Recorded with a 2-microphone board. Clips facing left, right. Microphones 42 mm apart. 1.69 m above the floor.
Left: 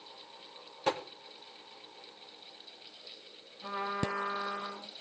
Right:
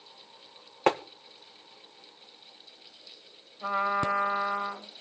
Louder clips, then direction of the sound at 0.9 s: Right 7 dB; 65° right (ahead or behind).